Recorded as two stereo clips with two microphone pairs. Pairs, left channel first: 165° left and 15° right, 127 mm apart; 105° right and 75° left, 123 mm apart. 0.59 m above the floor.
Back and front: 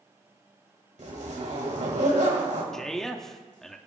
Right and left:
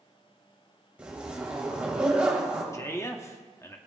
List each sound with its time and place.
1.0 s a zipper: 5° right, 3 m
2.7 s a man speaking: 115° right, 1.0 m